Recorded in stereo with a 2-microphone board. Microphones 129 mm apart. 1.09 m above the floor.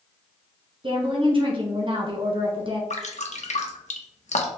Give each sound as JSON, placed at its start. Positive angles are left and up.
{"t": 0.8, "sound": "a woman speaking", "side_deg": -40, "distance_m": 1.0}
{"t": 2.9, "sound": "dripping", "side_deg": 60, "distance_m": 0.6}